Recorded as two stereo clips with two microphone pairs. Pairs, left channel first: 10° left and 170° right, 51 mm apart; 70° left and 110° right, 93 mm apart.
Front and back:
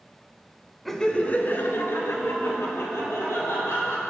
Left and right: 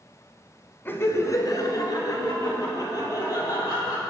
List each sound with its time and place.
0.8 s laughter: 95° left, 1.1 m; by 4.0 s 25° left, 5 m